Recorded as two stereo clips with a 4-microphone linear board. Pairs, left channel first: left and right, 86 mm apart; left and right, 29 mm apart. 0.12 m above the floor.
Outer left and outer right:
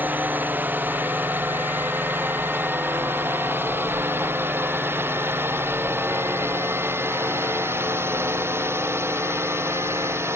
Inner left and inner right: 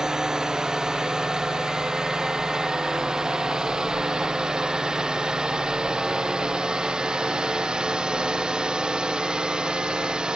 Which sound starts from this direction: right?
A drone, at 0.0 s.